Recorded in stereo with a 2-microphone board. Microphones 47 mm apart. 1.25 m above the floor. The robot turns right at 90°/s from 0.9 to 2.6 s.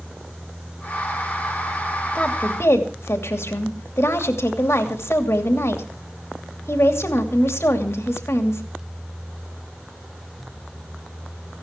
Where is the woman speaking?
20° left, 2.5 m; by 8.6 s 60° left, 2.5 m.